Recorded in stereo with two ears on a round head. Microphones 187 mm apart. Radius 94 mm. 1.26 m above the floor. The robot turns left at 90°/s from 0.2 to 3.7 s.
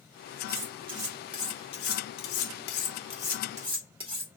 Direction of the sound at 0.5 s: 65° right (ahead or behind).